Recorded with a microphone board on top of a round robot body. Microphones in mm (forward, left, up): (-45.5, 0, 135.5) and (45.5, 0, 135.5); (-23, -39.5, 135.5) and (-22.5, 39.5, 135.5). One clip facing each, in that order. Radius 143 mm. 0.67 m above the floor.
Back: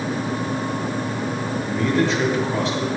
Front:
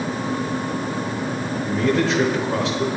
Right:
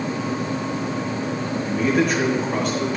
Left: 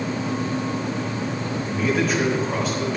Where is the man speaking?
Straight ahead, 3.5 m.